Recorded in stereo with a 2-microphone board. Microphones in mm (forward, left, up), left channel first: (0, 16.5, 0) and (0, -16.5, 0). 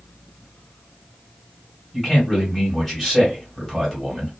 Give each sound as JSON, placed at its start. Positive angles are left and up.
{"t": 1.9, "sound": "a man speaking", "side_deg": 10, "distance_m": 1.9}